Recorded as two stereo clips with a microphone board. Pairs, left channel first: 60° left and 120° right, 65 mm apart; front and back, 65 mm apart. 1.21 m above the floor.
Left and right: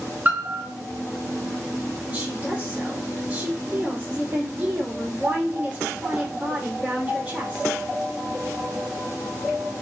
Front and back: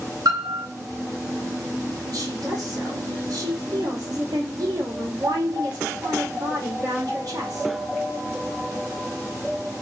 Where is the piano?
175° left, 3 m.